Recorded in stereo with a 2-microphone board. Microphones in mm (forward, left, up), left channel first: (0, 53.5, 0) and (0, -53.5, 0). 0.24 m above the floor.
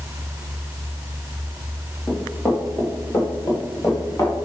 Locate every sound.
2.1 s running footsteps: centre (ahead or behind), 2.5 m; by 4.4 s 30° left (ahead or behind), 3 m